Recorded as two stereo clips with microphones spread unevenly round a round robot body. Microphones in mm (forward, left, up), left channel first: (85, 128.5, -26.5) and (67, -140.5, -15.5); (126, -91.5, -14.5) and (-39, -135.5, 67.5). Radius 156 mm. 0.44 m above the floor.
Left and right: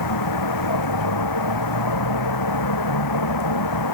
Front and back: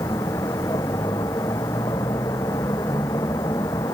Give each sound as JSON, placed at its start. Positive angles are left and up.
{"t": 0.0, "sound": "a vehicle", "azimuth_deg": 95}